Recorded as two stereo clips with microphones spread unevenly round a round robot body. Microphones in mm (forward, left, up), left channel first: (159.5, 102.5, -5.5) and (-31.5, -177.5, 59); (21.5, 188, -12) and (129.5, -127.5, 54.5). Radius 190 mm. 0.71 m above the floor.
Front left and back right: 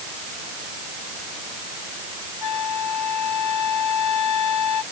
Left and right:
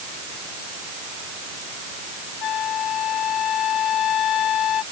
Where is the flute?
105° left.